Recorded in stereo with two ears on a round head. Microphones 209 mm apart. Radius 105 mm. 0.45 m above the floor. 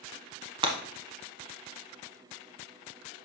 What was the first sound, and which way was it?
Breaking glass, 20° right (ahead or behind).